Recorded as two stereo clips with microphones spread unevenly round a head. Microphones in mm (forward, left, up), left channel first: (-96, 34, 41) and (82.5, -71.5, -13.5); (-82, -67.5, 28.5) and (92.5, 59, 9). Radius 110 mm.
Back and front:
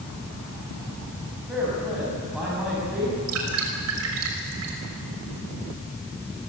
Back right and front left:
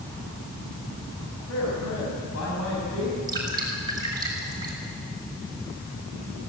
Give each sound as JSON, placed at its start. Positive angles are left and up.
{"t": 1.5, "sound": "a man speaking", "azimuth_deg": -120, "distance_m": 6.5}
{"t": 3.3, "sound": "dripping", "azimuth_deg": -35, "distance_m": 5.5}